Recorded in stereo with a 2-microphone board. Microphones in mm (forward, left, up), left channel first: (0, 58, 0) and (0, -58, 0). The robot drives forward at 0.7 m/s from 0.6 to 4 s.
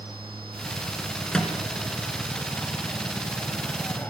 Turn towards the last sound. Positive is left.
turn(degrees=15)  # may be behind; listen again after turning